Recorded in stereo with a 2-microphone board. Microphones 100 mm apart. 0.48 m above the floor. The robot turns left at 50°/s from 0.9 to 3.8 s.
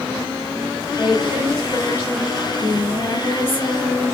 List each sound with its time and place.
1.0 s a woman speaking: 155° right, 2.5 m; by 2.3 s 140° left, 2.5 m
2.4 s singing: 150° left, 1.8 m; by 4.1 s 80° left, 1.8 m